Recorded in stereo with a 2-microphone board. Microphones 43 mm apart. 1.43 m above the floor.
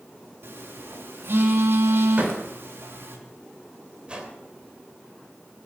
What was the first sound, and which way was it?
A phone buzzing, 70° right (ahead or behind).